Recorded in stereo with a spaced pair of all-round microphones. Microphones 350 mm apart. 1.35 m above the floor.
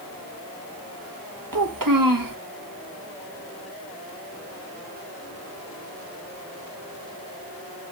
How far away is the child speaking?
About 1.2 m.